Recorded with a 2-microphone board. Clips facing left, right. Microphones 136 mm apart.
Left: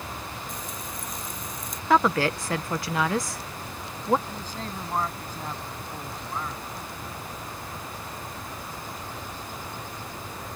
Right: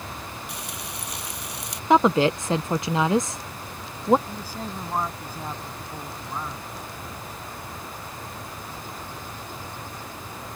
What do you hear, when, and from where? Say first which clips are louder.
0.5 s frying: even; 80° right
1.9 s a woman speaking: right 4 dB; 20° right (ahead or behind)
4.3 s a man speaking: right 1 dB; 10° right (ahead or behind)